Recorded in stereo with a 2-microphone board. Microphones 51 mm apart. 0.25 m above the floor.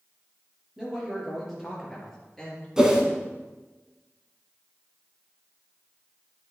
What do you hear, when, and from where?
0.8 s a man speaking: 10° right (ahead or behind), 4 m; by 2.7 s 5° left (ahead or behind), 4.5 m
2.8 s a whoosh: 10° right (ahead or behind), 1.4 m